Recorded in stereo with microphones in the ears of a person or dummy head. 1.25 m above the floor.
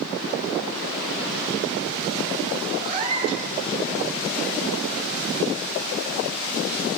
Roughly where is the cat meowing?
Right.